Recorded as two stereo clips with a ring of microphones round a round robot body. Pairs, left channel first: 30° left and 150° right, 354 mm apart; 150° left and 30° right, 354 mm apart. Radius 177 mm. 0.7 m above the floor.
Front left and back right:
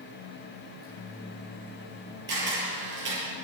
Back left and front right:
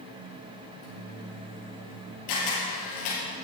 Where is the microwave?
135° left, 5 m.